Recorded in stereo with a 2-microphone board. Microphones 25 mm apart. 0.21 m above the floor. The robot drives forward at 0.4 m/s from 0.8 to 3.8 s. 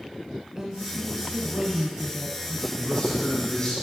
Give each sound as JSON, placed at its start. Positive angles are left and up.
{"t": 0.6, "sound": "a woman speaking", "side_deg": -25, "distance_m": 1.2}
{"t": 2.8, "sound": "a man speaking", "side_deg": 40, "distance_m": 2.5}